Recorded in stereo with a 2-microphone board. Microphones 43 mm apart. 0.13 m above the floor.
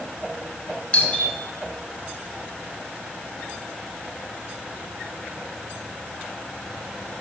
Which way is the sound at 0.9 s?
30° left (ahead or behind).